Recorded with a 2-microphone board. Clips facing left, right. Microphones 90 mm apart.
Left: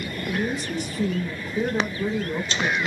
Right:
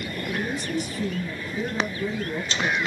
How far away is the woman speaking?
About 2.5 m.